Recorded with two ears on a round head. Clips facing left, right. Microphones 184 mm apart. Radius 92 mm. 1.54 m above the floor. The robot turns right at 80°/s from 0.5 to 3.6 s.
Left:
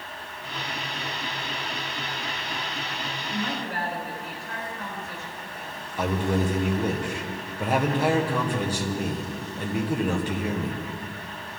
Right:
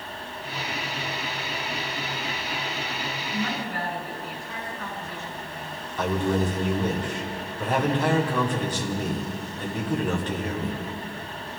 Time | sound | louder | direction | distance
3.3 | a woman speaking | even | 90° left | 6.5 m
6.0 | a man speaking | right 1 dB | 10° left (ahead or behind) | 1.3 m